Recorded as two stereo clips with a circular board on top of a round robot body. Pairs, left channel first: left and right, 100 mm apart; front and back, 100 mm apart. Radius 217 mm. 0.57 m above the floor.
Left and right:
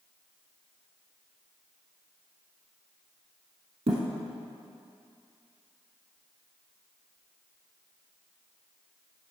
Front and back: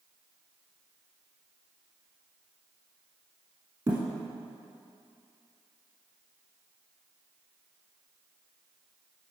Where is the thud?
125° right, 0.9 m.